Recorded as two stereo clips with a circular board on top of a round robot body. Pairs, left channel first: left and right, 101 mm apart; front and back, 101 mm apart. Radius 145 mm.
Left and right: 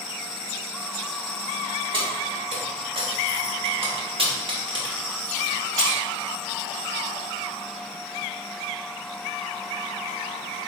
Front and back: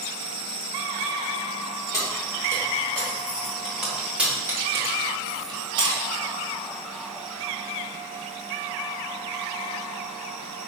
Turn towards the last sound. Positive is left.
turn(degrees=-150)